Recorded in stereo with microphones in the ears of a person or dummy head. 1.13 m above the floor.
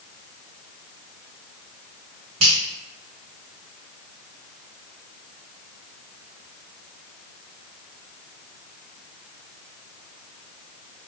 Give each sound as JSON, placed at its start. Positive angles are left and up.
{"t": 2.4, "sound": "a finger snap", "side_deg": -70, "distance_m": 1.2}